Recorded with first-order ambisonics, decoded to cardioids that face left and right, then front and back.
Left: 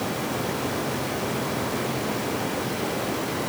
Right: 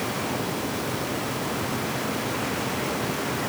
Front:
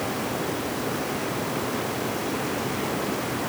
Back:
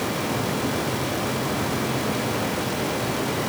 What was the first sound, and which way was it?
Only background noise.